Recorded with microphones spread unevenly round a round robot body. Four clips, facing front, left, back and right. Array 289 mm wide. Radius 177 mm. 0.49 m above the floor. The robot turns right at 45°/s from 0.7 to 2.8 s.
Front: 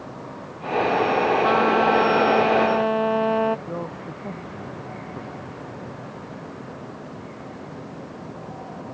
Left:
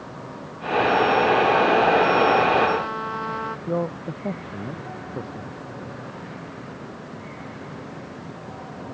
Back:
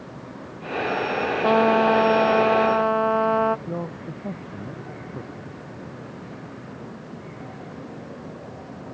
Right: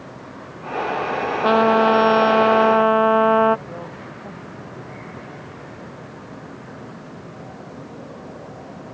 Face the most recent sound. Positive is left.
turn(degrees=130)